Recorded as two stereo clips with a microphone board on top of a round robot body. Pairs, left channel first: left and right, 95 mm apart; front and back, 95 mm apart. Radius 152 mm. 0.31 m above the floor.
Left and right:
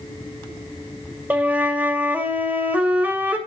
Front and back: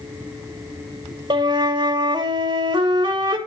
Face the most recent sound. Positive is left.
turn(degrees=-160)